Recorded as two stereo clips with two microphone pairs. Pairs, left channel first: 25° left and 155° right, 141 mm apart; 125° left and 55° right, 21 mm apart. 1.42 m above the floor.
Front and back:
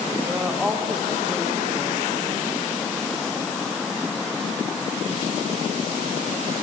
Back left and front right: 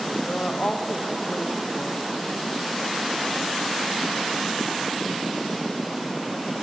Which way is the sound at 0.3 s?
120° left.